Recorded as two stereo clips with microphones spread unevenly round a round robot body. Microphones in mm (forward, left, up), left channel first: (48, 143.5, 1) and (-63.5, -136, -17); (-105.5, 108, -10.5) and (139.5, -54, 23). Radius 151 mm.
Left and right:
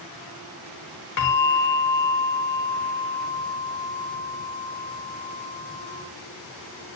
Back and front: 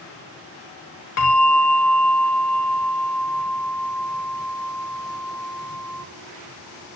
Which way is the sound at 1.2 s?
115° left.